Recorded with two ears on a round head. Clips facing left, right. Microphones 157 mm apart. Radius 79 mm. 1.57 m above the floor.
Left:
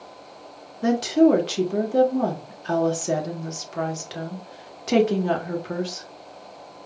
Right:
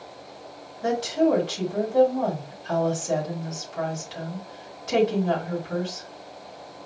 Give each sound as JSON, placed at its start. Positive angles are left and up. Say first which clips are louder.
{"t": 0.8, "sound": "a woman speaking", "louder": "left 5 dB", "side_deg": 70, "distance_m": 1.3}